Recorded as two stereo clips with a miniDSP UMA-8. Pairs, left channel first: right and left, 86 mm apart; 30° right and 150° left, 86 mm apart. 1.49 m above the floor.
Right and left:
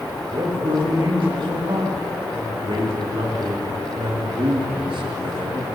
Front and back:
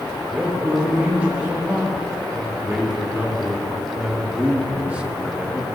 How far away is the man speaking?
About 7 m.